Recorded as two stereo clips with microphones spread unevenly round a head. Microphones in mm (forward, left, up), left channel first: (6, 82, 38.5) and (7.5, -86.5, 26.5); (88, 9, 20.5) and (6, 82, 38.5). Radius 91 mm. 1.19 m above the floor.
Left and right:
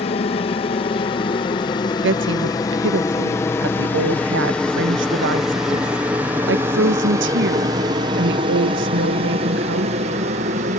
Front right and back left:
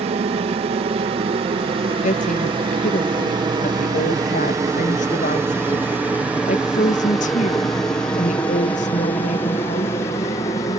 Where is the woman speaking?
70° right.